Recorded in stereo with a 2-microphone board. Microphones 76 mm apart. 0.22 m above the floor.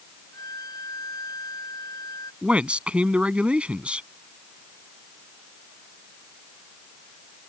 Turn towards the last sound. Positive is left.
turn(degrees=-15)  # may be behind; listen again after turning